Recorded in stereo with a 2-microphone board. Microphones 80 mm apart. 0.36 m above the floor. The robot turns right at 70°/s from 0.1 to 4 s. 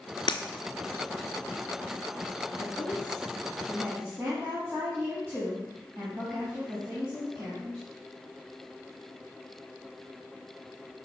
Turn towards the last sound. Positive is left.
turn(degrees=-145)